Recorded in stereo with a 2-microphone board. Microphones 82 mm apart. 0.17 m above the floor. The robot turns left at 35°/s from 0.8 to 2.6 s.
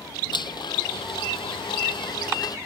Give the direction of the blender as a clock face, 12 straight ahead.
8 o'clock.